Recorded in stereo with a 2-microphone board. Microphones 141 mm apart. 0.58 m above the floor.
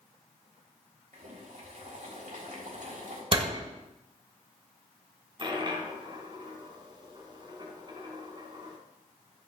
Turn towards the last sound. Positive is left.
turn(degrees=-35)  # may be behind; listen again after turning